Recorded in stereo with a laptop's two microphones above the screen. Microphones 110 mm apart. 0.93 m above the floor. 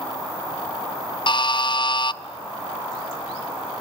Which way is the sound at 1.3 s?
50° left (ahead or behind).